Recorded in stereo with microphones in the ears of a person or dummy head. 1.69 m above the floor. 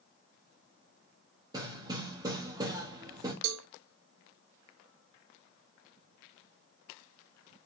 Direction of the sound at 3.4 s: 65° right (ahead or behind).